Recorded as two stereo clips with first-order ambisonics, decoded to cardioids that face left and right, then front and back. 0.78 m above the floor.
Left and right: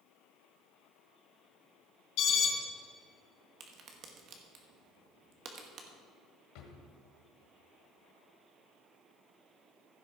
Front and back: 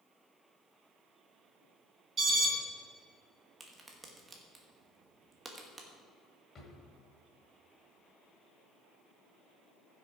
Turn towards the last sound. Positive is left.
turn(degrees=65)